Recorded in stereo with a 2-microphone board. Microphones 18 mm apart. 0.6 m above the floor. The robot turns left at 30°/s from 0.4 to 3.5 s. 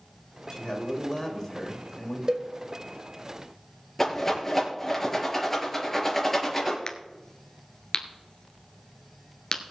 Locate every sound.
0.5 s a man speaking: 55° left, 3 m; by 2.2 s 5° left, 3 m
2.3 s a cowbell: 45° right (ahead or behind), 0.8 m
4.0 s a rattle: 20° left (ahead or behind), 4 m
6.9 s a crack: 45° left (ahead or behind), 1.5 m